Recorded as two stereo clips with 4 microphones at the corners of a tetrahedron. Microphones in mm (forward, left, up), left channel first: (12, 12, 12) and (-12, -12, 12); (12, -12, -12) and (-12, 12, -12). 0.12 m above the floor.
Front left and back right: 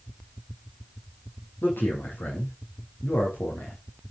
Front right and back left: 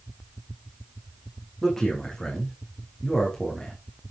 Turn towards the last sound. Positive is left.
turn(degrees=35)